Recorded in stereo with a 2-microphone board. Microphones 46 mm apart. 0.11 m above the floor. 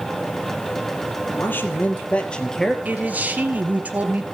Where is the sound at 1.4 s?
50° left (ahead or behind), 3 m; by 2.8 s 5° left (ahead or behind), 2.5 m.